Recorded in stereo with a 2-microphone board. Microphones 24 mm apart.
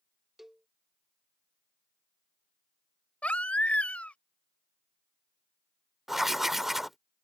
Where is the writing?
15° right (ahead or behind).